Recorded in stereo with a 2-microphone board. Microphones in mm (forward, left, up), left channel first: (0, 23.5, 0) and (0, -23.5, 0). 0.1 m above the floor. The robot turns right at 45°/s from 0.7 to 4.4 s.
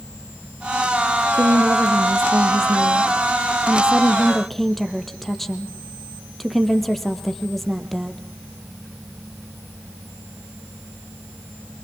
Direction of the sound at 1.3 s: 135° right.